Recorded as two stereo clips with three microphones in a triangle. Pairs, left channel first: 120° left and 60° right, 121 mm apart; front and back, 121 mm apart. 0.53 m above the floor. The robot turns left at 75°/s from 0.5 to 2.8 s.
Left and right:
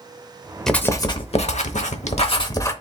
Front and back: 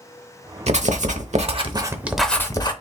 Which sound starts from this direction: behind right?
Writing, at 0.7 s.